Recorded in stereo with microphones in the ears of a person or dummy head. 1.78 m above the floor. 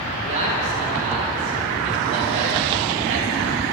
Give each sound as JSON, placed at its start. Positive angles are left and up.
{"t": 0.2, "sound": "a man speaking", "side_deg": -35, "distance_m": 3.0}